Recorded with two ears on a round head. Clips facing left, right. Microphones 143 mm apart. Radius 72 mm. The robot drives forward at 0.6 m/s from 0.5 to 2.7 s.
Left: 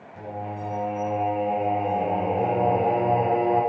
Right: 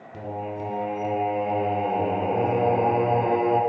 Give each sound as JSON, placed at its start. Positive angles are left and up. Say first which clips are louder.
{"t": 0.1, "sound": "singing", "louder": "right 2 dB", "side_deg": -70, "distance_m": 2.5}